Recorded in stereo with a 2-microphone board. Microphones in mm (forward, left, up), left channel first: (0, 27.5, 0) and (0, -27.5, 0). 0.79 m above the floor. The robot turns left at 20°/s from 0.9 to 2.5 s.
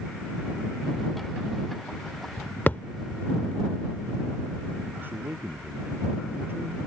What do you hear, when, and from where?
2.7 s a thud: 30° left (ahead or behind)
5.0 s a man speaking: 40° right (ahead or behind)